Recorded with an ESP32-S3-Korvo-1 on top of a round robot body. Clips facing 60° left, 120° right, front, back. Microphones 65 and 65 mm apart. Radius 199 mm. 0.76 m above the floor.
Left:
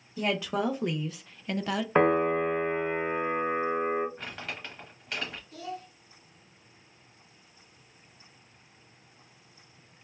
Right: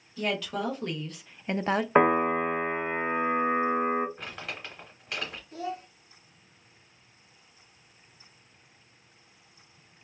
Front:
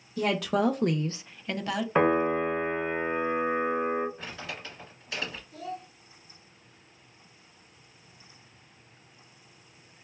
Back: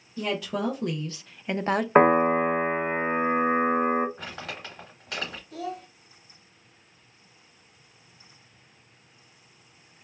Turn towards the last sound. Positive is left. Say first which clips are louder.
# right 4 dB, back 4 dB
turn(degrees=180)